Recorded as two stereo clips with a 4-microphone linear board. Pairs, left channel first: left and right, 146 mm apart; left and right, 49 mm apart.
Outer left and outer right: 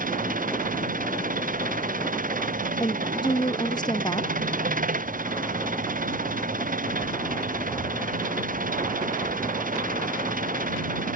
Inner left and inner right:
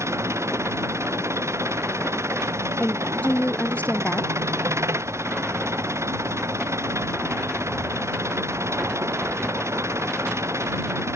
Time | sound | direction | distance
0.0 | an engine running | 70° right (ahead or behind) | ?
2.8 | a woman speaking | 30° left (ahead or behind) | ?